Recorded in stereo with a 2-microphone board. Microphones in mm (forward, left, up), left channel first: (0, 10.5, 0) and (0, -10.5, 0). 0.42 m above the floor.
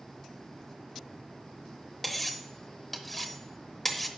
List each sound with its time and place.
2.0 s cutlery clinking: 10° left (ahead or behind), 0.7 m